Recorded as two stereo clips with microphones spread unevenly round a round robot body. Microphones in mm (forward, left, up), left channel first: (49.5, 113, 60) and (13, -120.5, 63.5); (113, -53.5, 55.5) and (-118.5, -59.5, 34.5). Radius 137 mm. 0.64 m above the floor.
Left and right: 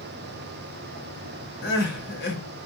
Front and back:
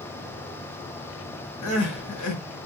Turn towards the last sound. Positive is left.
turn(degrees=35)